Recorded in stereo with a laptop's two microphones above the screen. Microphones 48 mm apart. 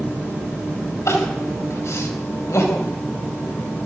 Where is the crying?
85° left, 4 m.